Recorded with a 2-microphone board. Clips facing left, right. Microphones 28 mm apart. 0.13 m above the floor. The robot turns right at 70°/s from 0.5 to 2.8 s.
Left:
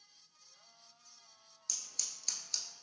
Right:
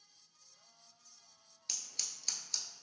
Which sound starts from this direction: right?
Scissors, at 1.7 s.